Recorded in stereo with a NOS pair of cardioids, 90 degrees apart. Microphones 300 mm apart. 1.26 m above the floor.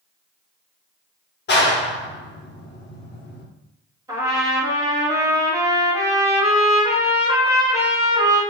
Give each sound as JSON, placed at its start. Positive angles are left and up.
{"t": 1.5, "sound": "a clap", "azimuth_deg": 35, "distance_m": 0.9}
{"t": 4.1, "sound": "a trumpet", "azimuth_deg": -10, "distance_m": 1.4}